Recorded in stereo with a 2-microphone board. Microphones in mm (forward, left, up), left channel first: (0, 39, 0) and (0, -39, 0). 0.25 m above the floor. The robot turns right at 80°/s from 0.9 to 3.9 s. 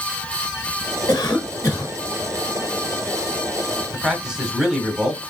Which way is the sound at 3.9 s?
10° right (ahead or behind).